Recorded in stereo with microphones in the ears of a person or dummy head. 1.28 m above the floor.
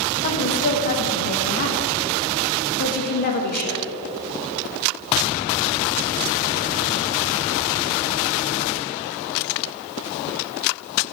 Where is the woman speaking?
55° left (ahead or behind), 1.3 m.